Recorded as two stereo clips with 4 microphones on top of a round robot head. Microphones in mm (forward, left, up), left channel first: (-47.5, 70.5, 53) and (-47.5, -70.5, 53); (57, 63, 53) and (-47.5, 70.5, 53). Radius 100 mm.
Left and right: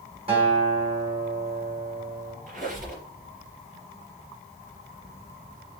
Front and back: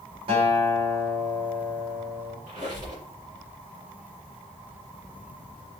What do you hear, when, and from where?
0.3 s a guitar: 140° right, 3 m
2.5 s a squeak: 115° right, 3 m